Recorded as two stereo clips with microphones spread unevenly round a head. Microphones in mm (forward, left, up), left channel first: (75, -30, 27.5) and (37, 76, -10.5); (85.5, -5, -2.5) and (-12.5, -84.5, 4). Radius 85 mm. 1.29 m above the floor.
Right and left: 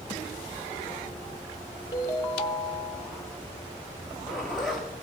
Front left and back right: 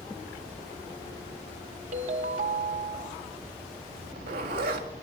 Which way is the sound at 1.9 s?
130° right.